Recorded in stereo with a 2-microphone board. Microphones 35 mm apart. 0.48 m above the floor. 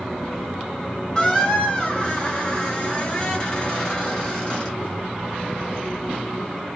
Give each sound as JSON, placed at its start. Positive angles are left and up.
{"t": 1.1, "sound": "a squeak", "side_deg": 25, "distance_m": 1.7}